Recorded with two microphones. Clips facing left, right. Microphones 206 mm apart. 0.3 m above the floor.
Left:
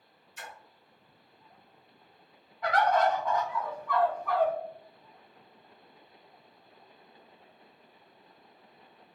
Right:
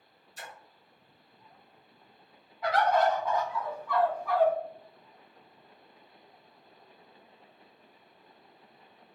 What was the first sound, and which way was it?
A splash, 40° right (ahead or behind).